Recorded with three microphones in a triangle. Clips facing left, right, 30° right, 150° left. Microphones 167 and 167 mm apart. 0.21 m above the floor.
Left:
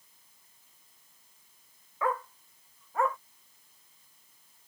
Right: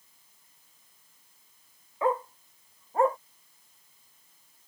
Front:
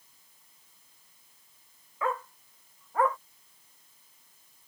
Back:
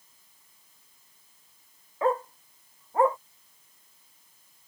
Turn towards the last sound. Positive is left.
turn(degrees=-145)